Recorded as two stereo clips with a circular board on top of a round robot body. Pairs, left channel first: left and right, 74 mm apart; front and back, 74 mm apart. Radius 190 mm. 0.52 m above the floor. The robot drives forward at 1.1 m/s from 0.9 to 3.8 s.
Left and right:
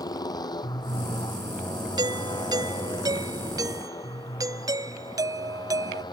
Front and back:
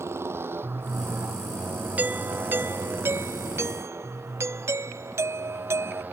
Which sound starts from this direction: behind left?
A motorcycle, at 0.0 s.